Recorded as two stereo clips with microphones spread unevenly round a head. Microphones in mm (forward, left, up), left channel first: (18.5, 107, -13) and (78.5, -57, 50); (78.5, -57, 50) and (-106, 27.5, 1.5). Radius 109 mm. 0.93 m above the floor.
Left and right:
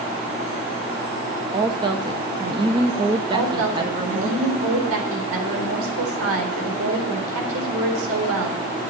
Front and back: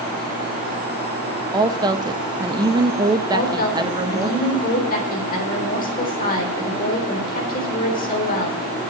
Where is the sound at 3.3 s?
75° right, 4 m.